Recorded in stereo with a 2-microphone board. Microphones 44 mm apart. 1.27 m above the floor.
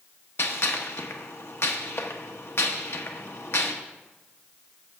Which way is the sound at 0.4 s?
65° left (ahead or behind).